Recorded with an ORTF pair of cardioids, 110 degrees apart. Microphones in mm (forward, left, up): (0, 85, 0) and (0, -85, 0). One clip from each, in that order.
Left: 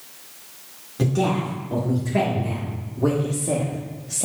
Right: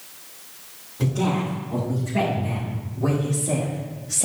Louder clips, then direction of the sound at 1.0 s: Left 2 dB; 60° left.